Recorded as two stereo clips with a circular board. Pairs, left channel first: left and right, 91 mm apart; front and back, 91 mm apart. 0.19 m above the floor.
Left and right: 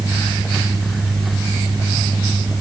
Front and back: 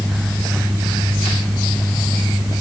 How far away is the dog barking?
No dog barking in this recording.